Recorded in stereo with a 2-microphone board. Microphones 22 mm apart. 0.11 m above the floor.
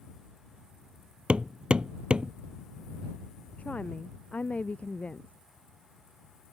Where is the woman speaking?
75° left (ahead or behind).